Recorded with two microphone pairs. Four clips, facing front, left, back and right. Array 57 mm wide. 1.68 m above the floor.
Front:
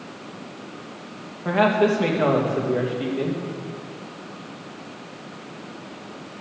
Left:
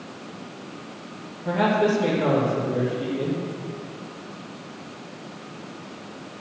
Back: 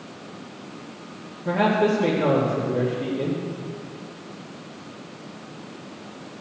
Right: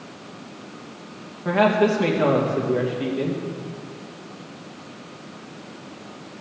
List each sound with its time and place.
1.4 s a man speaking: 30° right, 2.5 m